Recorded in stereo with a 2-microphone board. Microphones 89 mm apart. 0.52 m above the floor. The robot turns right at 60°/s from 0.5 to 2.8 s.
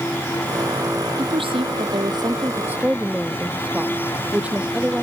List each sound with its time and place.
1.2 s a woman speaking: 110° right; by 5.0 s 15° right